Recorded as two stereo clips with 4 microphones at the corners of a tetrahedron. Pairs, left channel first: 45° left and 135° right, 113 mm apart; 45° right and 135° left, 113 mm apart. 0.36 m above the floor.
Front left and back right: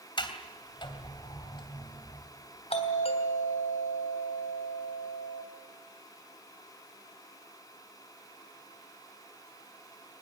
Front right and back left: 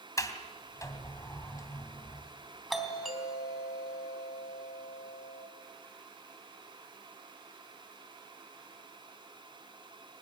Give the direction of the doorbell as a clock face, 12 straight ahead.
10 o'clock.